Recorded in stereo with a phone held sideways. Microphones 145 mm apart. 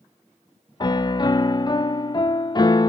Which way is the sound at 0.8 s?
30° left (ahead or behind).